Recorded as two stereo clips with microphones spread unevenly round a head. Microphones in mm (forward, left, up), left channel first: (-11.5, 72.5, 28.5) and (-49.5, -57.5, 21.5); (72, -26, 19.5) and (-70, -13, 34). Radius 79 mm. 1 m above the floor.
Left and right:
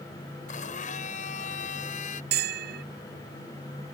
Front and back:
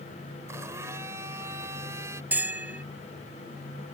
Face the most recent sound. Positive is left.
turn(degrees=-105)